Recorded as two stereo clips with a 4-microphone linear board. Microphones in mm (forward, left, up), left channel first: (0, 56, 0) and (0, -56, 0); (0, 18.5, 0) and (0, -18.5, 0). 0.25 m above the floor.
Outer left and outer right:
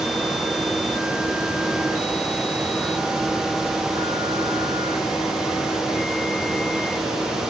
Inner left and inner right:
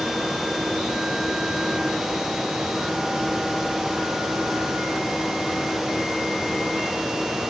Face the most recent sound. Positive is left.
No sound to turn to.